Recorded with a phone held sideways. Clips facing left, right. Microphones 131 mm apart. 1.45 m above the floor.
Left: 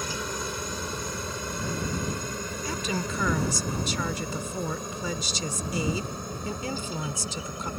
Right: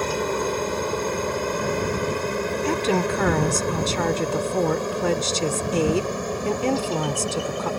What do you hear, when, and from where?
0.0 s a helicopter: 60° right (ahead or behind); by 7.8 s 80° right
2.6 s a woman speaking: 70° right (ahead or behind)